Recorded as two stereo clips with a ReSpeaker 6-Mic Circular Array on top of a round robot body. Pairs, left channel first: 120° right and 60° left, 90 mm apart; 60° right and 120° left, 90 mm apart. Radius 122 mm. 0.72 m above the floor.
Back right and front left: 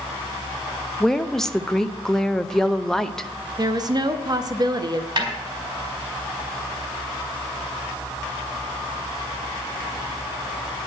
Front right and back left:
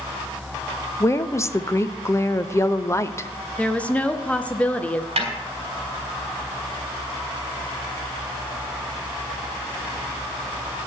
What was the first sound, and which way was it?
A woman speaking, 40° right.